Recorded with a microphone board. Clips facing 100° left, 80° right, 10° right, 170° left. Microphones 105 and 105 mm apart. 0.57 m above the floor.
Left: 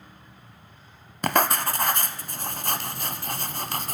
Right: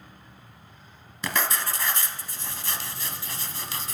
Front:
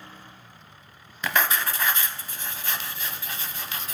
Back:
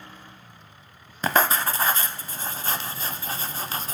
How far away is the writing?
About 0.7 m.